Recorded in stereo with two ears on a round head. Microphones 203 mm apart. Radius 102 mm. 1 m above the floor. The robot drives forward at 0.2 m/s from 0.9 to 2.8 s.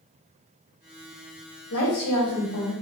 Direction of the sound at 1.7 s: 75° left (ahead or behind).